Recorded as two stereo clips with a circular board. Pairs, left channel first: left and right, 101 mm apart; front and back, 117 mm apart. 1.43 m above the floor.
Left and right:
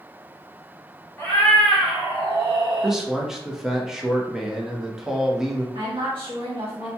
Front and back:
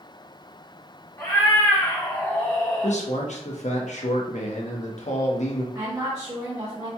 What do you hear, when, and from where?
1.2 s a cat meowing: 40° left, 1.1 m; by 3.0 s 85° right, 1.4 m
2.8 s a man speaking: 5° right, 0.8 m
5.8 s a woman speaking: 120° right, 1.5 m